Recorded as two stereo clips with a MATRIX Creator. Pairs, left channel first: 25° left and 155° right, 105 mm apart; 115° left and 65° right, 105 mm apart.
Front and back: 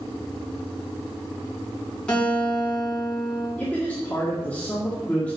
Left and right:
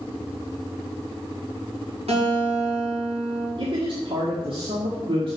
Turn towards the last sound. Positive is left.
turn(degrees=-50)